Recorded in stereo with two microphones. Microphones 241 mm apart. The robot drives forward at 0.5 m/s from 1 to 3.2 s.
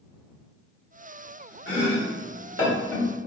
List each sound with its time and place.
1.7 s chopping: 55° left (ahead or behind), 1.5 m; by 3.1 s 70° left (ahead or behind), 1.4 m